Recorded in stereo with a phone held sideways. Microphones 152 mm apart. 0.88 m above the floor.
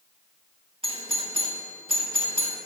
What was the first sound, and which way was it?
A doorbell, 40° right (ahead or behind).